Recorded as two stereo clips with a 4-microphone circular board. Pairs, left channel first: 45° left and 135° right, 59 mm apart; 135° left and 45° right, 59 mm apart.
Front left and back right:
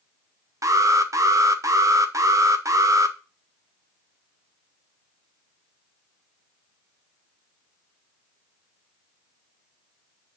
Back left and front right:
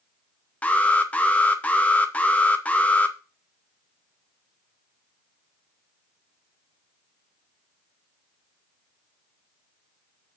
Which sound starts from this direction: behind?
An alarm, at 0.6 s.